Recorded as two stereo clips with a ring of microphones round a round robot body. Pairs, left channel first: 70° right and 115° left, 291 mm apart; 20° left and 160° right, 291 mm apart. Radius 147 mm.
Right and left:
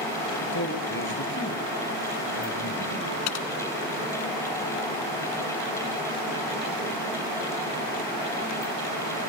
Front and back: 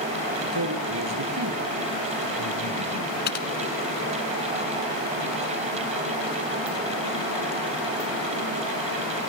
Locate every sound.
0.5 s a man speaking: 120° right, 6 m; by 3.1 s 125° right, 7.5 m
3.3 s typing on a keyboard: 35° right, 1.9 m